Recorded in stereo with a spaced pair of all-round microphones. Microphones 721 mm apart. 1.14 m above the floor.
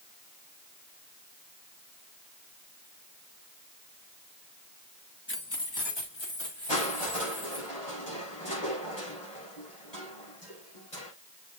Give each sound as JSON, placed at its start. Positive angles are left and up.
{"t": 5.3, "sound": "keys jangling", "side_deg": 15, "distance_m": 1.0}
{"t": 6.7, "sound": "crushing", "side_deg": 70, "distance_m": 6.5}